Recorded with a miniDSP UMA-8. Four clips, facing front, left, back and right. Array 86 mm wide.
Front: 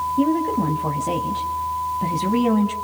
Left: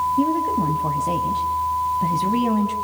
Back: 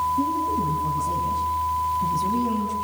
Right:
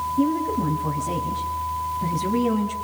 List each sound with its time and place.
0.2 s a woman speaking: 30° left, 2.5 m